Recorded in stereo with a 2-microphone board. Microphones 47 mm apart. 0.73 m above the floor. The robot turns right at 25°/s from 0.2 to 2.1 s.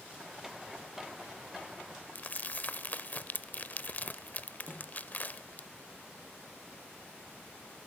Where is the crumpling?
40° left (ahead or behind), 0.6 m.